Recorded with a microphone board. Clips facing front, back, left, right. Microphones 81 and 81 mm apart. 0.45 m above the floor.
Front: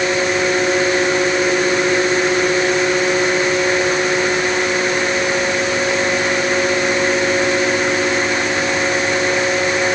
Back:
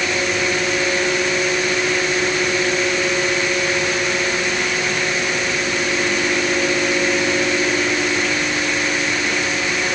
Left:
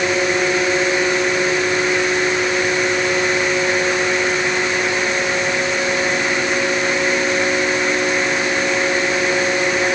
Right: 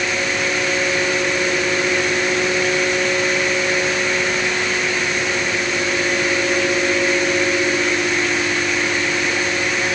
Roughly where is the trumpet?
No trumpet in this recording.